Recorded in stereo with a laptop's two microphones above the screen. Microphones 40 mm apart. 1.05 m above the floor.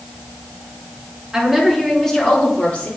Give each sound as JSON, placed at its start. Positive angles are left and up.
{"t": 1.3, "sound": "a woman speaking", "side_deg": -15, "distance_m": 2.0}